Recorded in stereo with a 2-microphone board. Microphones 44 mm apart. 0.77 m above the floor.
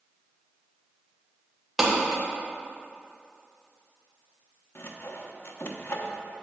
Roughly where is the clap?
Centre.